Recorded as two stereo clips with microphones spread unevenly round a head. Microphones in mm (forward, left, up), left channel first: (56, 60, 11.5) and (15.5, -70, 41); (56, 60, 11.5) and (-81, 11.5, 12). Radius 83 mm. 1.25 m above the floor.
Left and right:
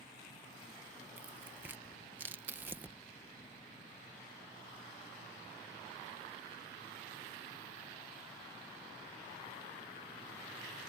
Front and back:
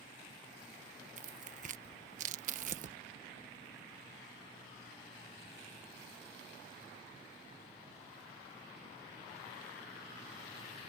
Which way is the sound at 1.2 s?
170° left.